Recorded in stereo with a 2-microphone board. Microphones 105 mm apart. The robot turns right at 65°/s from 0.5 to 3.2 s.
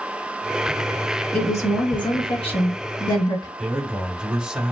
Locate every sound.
1.3 s a woman speaking: 15° left, 1.9 m; by 3.5 s 140° left, 1.9 m
3.6 s a man speaking: 10° right (ahead or behind), 1.0 m